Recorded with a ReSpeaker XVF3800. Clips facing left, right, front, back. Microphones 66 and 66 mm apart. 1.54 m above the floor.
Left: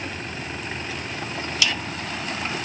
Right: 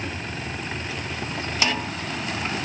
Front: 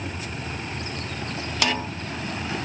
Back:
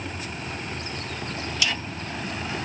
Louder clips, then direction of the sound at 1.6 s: Right 2 dB, front 5 dB; 35° right.